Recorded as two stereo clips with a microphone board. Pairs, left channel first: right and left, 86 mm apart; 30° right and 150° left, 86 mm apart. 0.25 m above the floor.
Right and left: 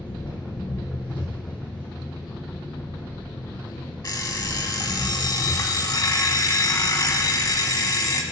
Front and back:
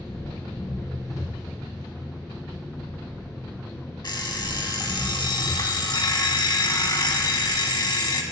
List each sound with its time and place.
0.0 s an engine running: 85° right, 2.5 m
4.0 s an alarm clock: 55° right, 0.6 m